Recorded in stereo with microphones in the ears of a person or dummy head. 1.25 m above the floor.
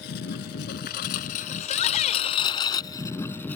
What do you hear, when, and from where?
0.0 s a lawn mower: 65° left (ahead or behind); by 3.6 s 10° left (ahead or behind)
1.6 s a shout: 40° left (ahead or behind)